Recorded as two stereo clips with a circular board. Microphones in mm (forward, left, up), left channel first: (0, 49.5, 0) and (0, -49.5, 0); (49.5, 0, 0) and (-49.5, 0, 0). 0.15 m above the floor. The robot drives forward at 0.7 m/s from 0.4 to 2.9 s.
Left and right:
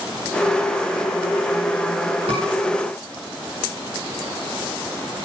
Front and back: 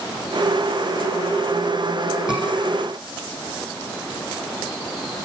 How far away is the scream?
About 9 m.